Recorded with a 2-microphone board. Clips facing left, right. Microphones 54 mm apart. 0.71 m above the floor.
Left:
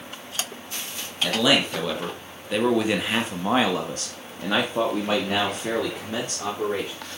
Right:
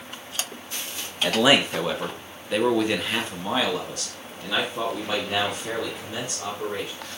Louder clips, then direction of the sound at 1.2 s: Right 2 dB; 25° right (ahead or behind).